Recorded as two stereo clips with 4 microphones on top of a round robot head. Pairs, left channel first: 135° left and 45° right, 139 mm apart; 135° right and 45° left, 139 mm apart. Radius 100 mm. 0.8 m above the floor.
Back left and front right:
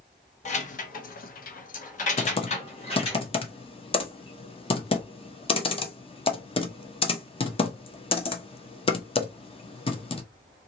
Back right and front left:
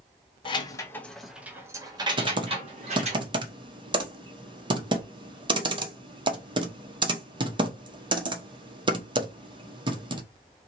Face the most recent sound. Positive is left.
turn(degrees=95)